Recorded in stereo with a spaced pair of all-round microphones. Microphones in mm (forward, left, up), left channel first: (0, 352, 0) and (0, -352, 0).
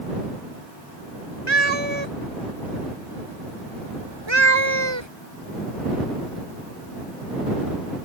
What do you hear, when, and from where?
1.5 s a cat meowing: 40° right (ahead or behind)